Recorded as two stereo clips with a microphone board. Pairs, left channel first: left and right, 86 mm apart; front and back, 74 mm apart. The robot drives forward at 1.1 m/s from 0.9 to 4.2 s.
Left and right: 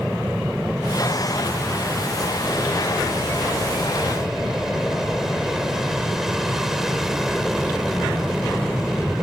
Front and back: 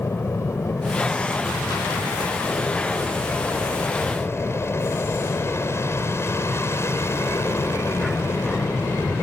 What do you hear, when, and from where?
0.0 s an aircraft: 5° right